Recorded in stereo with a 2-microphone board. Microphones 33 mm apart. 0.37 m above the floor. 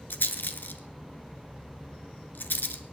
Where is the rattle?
85° left, 1.2 m.